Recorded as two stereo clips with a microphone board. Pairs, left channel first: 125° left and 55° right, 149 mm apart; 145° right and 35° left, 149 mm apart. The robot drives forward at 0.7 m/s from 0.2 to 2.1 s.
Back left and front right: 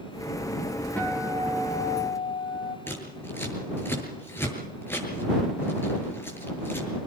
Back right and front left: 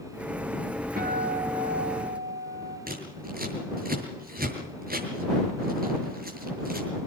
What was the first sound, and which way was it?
A guitar, 45° left.